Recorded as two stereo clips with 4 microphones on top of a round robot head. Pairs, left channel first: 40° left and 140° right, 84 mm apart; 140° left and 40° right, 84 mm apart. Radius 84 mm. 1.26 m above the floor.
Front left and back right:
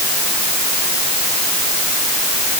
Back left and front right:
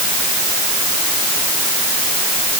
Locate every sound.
Only background noise.